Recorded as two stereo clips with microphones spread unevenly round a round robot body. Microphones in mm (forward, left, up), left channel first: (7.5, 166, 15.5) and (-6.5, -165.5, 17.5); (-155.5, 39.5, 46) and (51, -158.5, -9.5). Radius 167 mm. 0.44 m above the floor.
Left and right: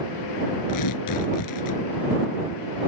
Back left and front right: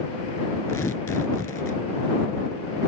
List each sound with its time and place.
0.7 s tearing paper: 55° left